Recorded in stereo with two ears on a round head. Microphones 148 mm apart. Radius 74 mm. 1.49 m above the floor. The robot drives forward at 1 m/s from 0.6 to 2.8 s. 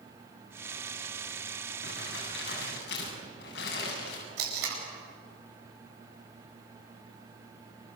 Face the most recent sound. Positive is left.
turn(degrees=-70)  # may be behind; listen again after turning